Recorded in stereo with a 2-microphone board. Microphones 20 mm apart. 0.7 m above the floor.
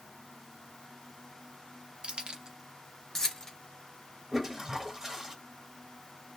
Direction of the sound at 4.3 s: 25° right (ahead or behind).